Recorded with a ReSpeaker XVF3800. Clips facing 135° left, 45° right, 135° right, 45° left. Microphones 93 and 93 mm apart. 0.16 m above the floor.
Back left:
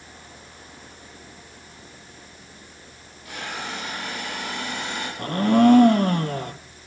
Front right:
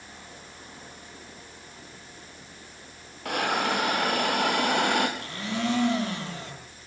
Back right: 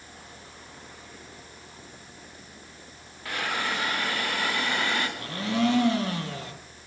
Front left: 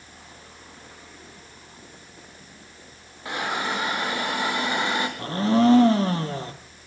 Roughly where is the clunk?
I don't hear a clunk.